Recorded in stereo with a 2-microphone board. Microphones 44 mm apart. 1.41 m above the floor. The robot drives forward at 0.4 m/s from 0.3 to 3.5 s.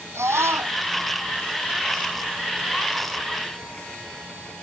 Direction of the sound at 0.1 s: 80° right.